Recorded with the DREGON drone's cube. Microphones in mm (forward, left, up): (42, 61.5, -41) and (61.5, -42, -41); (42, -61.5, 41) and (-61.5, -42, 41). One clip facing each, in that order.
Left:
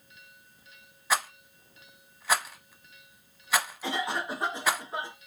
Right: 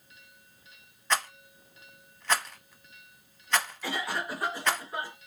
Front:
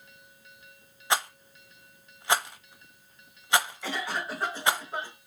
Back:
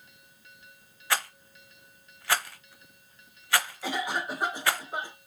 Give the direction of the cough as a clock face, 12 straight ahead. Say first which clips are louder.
Left 2 dB, back 2 dB; 8 o'clock.